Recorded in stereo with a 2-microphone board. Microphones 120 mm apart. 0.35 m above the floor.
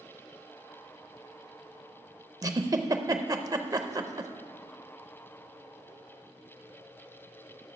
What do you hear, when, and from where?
2.4 s a giggle: 30° right (ahead or behind), 0.5 m